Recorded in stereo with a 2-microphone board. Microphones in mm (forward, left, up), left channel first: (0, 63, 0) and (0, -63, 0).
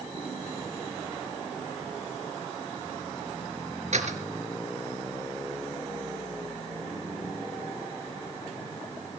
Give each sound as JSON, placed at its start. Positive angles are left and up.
{"t": 3.9, "sound": "a door slam", "side_deg": -65, "distance_m": 3.5}